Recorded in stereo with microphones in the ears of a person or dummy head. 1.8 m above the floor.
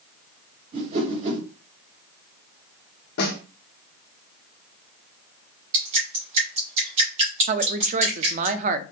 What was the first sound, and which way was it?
A whoosh, 35° right (ahead or behind).